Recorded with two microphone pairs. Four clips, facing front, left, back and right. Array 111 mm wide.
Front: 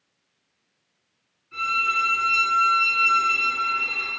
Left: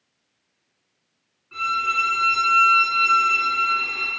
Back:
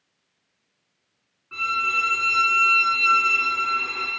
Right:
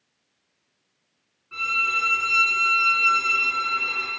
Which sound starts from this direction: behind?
A violin, at 1.5 s.